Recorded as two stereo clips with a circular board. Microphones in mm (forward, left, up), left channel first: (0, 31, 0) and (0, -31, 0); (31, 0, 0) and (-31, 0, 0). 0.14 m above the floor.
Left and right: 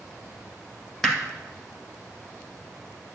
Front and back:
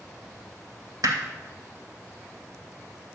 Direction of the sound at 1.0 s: 175° left.